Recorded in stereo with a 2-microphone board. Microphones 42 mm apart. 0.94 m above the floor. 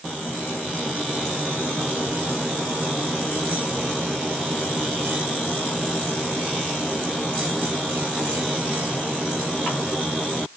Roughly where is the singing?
No singing in this recording.